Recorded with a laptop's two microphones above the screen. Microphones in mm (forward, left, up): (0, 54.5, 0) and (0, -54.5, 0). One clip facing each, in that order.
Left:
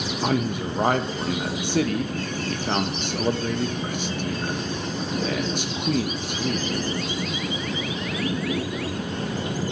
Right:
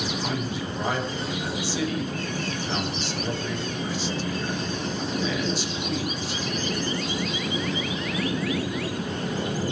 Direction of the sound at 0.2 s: 55° left (ahead or behind).